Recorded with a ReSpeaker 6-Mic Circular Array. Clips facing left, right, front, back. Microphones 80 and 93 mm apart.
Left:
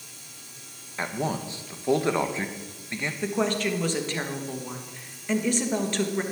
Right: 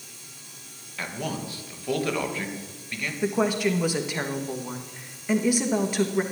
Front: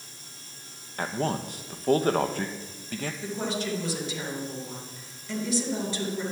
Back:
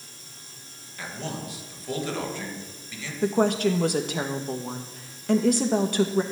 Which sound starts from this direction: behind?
A woman speaking, at 3.2 s.